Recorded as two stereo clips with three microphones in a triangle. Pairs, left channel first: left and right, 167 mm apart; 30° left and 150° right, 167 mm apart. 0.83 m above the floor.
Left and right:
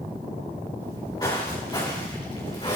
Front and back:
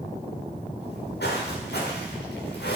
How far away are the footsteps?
About 5.5 m.